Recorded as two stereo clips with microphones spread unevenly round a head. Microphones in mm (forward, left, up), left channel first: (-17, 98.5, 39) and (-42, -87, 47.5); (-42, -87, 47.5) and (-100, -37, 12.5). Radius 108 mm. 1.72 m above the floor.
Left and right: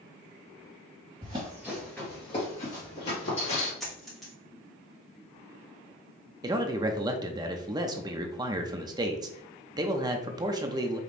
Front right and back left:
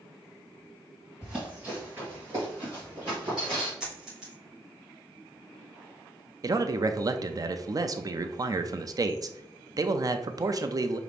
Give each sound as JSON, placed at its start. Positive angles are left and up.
{"t": 1.2, "sound": "running footsteps", "azimuth_deg": -100, "distance_m": 1.8}
{"t": 3.8, "sound": "a dropped coin", "azimuth_deg": -10, "distance_m": 1.0}
{"t": 6.4, "sound": "a man speaking", "azimuth_deg": -165, "distance_m": 0.5}